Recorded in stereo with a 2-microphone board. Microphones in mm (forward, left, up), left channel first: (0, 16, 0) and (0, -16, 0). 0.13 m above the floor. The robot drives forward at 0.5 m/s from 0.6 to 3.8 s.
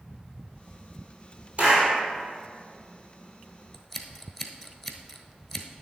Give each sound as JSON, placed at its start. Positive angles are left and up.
{"t": 1.6, "sound": "a clap", "side_deg": -35, "distance_m": 3.5}
{"t": 3.7, "sound": "scissors", "side_deg": 0, "distance_m": 0.9}